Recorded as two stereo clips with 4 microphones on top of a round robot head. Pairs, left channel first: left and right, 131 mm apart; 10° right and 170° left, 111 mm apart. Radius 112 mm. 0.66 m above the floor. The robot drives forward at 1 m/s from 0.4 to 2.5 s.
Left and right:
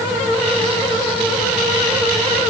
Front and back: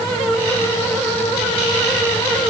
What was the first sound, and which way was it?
Only background noise.